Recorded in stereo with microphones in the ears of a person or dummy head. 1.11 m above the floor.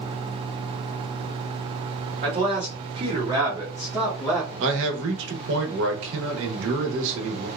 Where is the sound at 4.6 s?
70° right (ahead or behind), 1.0 m.